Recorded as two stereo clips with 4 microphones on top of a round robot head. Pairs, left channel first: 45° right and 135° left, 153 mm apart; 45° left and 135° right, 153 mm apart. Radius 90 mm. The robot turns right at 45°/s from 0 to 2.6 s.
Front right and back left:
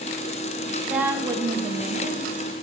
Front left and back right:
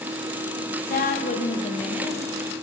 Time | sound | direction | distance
0.9 | a woman speaking | 55° left | 1.4 m